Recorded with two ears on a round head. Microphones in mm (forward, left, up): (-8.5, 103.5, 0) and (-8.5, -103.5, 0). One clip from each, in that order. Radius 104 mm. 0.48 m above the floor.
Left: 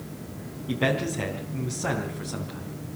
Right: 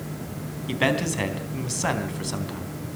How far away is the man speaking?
About 3.5 m.